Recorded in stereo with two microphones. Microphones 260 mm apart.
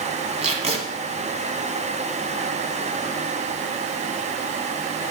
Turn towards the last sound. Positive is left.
turn(degrees=-25)  # may be behind; listen again after turning